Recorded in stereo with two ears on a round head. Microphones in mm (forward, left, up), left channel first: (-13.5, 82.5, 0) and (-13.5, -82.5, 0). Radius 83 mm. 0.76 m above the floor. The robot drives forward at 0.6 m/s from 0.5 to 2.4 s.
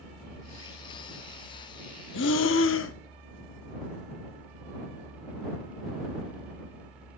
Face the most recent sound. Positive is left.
turn(degrees=75)  # may be behind; listen again after turning